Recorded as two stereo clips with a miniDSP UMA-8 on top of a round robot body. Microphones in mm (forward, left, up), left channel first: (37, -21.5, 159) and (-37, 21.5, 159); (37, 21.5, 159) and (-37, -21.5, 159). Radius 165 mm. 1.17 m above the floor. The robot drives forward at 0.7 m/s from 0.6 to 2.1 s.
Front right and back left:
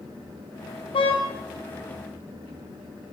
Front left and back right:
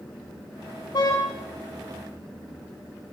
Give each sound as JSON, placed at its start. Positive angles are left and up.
{"t": 0.9, "sound": "a car horn", "azimuth_deg": -10, "distance_m": 4.5}